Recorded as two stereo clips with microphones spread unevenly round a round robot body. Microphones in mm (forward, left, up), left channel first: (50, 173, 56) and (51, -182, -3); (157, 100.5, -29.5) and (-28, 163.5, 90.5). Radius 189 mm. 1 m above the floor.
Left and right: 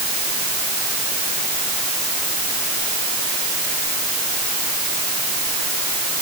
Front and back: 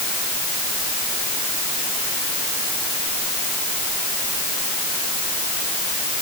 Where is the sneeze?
I don't hear a sneeze.